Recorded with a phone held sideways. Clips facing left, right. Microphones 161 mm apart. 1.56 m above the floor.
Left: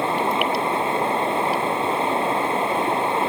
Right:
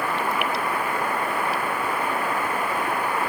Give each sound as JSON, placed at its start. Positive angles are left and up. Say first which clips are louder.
{"t": 0.0, "sound": "running water", "louder": "left 4 dB", "side_deg": 25}